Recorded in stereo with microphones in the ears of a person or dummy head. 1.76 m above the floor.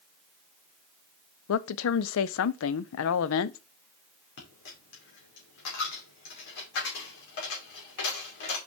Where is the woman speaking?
70° left (ahead or behind), 0.6 m.